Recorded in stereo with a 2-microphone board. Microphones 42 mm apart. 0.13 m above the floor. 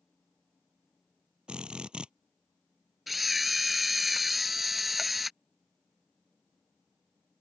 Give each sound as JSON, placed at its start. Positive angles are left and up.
{"t": 1.5, "sound": "a drill", "side_deg": -25}
{"t": 3.1, "sound": "a camera shutter", "side_deg": -5}